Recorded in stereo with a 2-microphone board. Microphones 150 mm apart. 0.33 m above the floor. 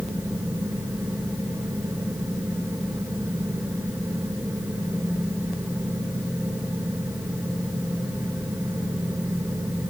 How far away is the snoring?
I don't hear snoring.